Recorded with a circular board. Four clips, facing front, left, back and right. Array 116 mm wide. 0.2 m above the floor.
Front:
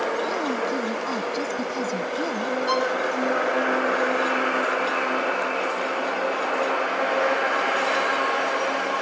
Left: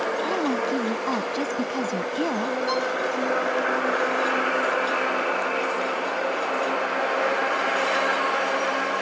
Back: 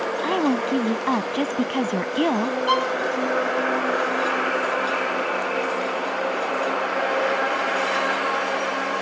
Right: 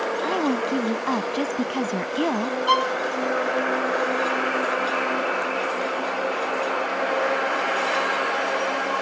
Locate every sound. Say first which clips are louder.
0.2 s a woman speaking: right 1 dB, back 4 dB; 160° right
2.7 s a violin: right 8 dB, back 1 dB; 110° right